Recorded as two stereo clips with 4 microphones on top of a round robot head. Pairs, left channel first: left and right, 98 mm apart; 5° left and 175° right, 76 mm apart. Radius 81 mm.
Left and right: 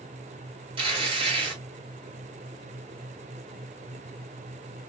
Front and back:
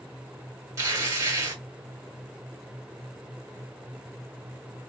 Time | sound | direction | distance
0.8 | tearing paper | 120° right | 1.4 m